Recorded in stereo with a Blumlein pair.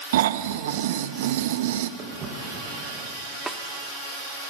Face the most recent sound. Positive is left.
turn(degrees=-10)